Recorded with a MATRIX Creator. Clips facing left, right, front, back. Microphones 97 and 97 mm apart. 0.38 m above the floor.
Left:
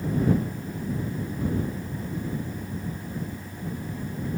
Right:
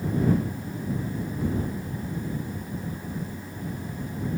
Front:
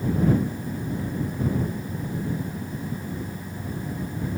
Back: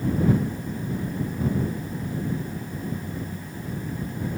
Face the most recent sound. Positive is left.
No sound to turn to.